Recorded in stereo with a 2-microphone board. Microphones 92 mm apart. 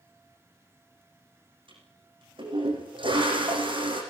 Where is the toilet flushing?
75° right (ahead or behind), 8 m.